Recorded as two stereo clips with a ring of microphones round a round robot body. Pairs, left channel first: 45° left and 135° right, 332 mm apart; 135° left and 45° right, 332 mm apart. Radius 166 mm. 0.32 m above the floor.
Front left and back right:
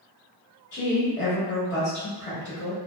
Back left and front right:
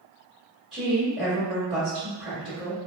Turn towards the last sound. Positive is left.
turn(degrees=45)